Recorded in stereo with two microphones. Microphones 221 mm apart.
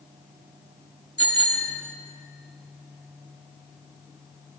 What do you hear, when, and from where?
1.2 s a bicycle bell: 75° left (ahead or behind), 2.5 m